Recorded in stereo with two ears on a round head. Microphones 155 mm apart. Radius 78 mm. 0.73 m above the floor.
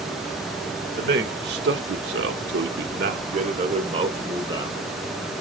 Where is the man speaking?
55° right (ahead or behind), 2 m; by 5.4 s 15° right (ahead or behind), 3 m.